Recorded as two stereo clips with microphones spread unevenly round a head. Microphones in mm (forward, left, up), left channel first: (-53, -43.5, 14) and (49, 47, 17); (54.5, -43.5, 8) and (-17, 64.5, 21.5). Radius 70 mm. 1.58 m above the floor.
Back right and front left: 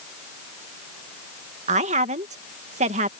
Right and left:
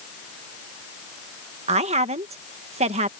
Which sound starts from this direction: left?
A woman speaking, at 1.7 s.